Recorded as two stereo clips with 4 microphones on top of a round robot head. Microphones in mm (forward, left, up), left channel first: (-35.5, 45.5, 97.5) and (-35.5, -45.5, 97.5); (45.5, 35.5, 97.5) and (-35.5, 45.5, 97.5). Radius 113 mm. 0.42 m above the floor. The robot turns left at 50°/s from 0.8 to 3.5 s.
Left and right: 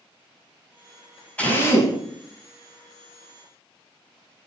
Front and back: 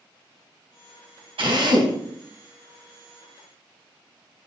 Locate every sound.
1.4 s a drill: 165° left, 3.5 m; by 2.0 s 140° left, 3.5 m